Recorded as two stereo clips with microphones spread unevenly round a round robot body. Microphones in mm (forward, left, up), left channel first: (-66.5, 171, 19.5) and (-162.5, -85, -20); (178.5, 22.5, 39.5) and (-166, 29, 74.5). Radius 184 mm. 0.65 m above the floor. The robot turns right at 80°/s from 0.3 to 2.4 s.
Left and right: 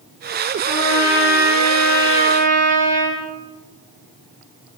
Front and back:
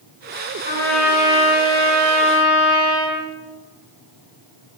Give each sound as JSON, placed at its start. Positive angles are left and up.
{"t": 0.7, "sound": "a trumpet", "azimuth_deg": 65, "distance_m": 8.5}